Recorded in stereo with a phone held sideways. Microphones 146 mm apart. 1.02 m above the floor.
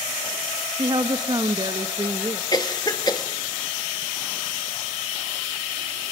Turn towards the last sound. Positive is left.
turn(degrees=30)  # may be behind; listen again after turning